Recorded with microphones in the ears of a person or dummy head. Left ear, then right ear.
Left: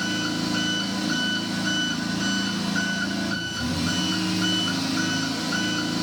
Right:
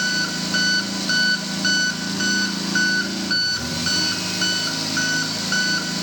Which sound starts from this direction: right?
An engine running, at 0.0 s.